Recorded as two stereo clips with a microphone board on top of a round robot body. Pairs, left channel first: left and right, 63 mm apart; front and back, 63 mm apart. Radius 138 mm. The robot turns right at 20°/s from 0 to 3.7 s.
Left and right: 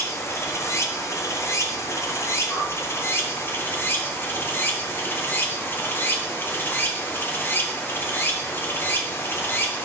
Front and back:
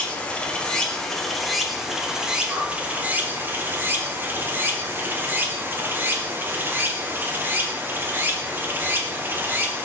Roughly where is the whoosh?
Behind left.